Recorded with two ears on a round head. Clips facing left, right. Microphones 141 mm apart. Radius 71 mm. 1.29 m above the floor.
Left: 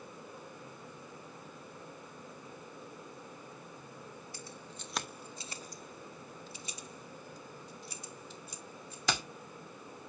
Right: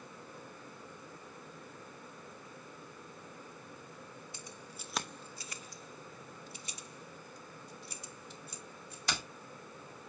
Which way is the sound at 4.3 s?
20° right (ahead or behind).